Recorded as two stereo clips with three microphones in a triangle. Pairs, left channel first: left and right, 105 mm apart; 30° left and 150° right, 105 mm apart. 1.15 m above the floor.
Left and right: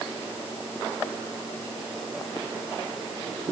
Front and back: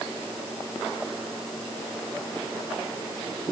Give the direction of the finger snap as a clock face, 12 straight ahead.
I don't hear a finger snap.